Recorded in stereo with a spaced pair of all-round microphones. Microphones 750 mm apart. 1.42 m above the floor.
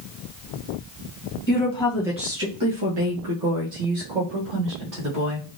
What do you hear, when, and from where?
1.5 s a woman speaking: 15° left (ahead or behind), 0.9 m; by 5.5 s 80° right, 1.7 m